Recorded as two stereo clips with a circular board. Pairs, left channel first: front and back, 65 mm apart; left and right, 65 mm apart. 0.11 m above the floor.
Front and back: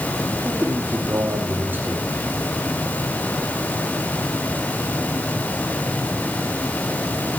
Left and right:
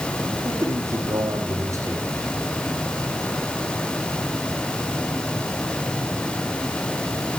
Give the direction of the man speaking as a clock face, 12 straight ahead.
4 o'clock.